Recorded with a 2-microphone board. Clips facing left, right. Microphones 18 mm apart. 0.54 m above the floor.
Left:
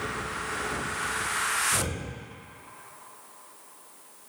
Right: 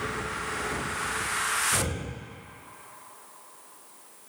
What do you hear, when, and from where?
1.7 s breathing: 50° right (ahead or behind), 1.5 m